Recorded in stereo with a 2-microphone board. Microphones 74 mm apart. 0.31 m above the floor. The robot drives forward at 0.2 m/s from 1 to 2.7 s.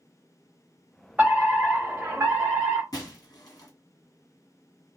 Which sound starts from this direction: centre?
A fire alarm, at 1.2 s.